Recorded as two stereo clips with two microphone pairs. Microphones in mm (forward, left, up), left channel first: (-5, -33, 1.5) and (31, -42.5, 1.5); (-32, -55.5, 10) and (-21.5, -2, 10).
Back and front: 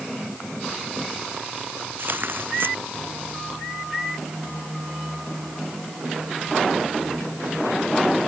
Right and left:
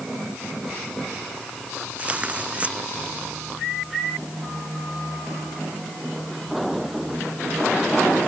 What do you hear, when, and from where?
2.0 s tearing paper: 15° left